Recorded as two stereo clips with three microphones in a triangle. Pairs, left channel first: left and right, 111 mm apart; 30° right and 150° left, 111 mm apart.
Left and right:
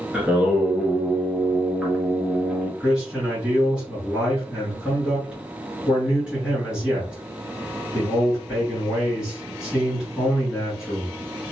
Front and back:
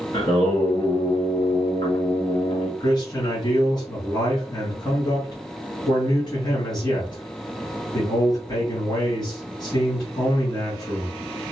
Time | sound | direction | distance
0.1 | singing | 10° right | 1.3 m
2.8 | a man speaking | 10° right | 1.6 m